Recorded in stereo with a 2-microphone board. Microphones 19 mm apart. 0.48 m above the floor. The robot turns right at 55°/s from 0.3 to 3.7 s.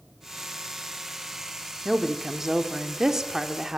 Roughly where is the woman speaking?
Centre.